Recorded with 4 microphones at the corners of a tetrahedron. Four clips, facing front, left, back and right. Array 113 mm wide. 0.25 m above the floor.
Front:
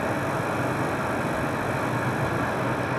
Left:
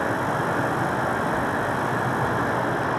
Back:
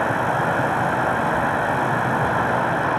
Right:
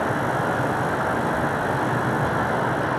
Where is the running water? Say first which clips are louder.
Right 1 dB, back 6 dB; 175° right, 4 m.